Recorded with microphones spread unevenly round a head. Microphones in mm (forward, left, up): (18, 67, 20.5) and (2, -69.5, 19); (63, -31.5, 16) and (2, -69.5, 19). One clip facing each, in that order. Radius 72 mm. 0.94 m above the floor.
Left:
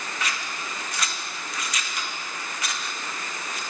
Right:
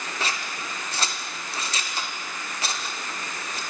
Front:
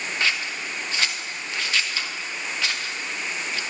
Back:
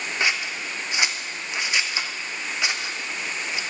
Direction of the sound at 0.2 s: 90° right.